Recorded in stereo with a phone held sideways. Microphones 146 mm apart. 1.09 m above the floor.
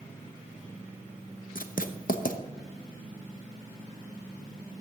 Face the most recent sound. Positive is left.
turn(degrees=70)  # may be behind; listen again after turning